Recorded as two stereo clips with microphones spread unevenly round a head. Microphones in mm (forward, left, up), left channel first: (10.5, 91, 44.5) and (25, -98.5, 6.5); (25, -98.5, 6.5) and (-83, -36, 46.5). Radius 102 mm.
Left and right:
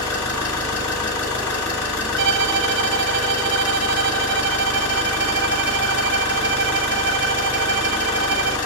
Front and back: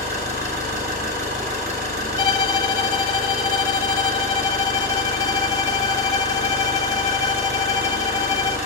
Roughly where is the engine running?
Left.